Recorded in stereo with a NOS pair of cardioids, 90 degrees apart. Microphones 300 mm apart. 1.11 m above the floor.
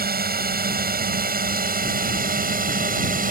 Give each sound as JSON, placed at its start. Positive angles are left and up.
{"t": 0.0, "sound": "a drone", "azimuth_deg": -30}